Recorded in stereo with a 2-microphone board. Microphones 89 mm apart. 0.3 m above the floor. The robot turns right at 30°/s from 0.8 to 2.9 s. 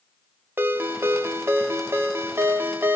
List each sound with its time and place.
0.6 s a ringtone: 25° right (ahead or behind), 0.6 m